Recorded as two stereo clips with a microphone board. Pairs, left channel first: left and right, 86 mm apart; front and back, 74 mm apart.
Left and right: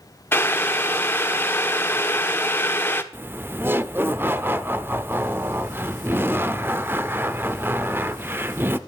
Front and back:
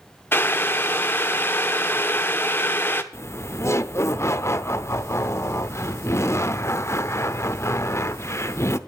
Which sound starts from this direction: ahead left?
Boiling, at 0.3 s.